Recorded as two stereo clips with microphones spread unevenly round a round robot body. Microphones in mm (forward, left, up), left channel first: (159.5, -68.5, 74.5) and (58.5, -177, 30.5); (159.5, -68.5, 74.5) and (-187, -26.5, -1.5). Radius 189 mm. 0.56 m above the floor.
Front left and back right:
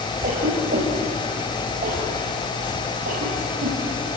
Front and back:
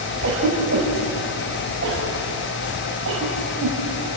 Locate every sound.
0.2 s a cough: 135° right, 3.5 m